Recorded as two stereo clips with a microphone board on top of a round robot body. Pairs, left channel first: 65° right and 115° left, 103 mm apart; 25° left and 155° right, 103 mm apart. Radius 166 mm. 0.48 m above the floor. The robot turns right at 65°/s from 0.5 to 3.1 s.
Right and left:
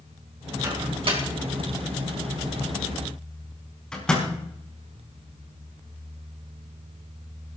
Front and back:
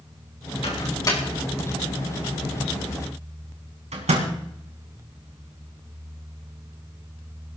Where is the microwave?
50° left, 4 m; by 4.3 s 150° right, 4 m.